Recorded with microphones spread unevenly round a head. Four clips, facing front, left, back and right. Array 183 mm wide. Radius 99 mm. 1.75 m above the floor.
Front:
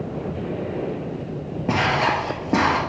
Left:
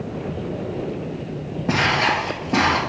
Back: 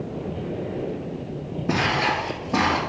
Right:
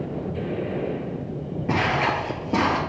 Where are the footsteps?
65° left, 1.9 m; by 2.8 s 15° right, 1.8 m.